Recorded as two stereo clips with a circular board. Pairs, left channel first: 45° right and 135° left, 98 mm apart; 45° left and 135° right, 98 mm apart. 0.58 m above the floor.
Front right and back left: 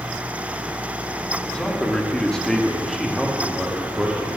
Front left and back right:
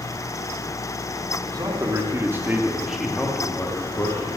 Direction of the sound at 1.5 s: 120° right.